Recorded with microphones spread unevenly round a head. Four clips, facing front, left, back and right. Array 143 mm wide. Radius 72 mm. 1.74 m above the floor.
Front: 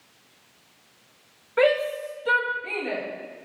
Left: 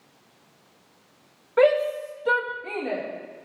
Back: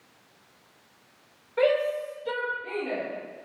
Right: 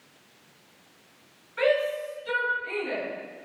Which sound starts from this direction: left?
A shout, at 1.6 s.